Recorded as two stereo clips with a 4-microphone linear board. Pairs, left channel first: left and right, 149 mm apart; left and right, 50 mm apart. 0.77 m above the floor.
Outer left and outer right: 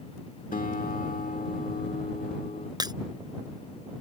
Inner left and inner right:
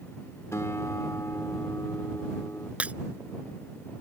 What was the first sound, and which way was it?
A guitar, 60° left (ahead or behind).